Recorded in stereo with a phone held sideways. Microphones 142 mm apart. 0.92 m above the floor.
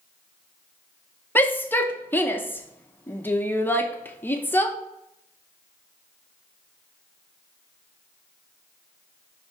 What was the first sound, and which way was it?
A shout, 15° left (ahead or behind).